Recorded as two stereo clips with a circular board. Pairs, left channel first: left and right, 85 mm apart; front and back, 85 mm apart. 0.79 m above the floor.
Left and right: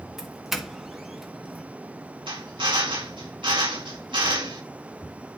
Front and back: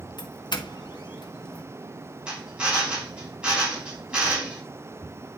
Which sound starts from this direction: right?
A drill, at 2.3 s.